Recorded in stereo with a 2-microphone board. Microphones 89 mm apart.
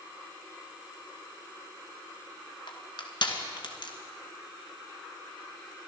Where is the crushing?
60° left (ahead or behind), 1.9 m.